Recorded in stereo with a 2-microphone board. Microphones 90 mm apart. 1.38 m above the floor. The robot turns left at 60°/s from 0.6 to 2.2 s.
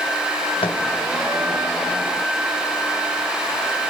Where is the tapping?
70° left (ahead or behind), 1.3 m; by 0.8 s 60° left (ahead or behind), 1.3 m.